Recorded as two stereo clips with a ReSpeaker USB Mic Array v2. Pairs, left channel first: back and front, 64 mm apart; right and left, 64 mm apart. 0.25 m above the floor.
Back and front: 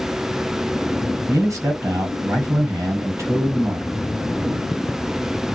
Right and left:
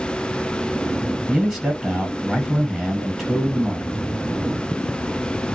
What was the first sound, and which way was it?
A man speaking, straight ahead.